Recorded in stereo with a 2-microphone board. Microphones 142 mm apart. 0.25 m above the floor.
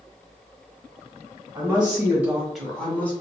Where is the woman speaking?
35° right (ahead or behind), 1.1 m; by 3.1 s 15° left (ahead or behind), 1.0 m.